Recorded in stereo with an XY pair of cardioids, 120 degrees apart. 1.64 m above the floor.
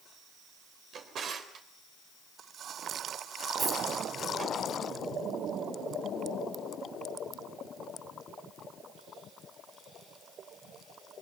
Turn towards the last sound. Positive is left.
turn(degrees=-40)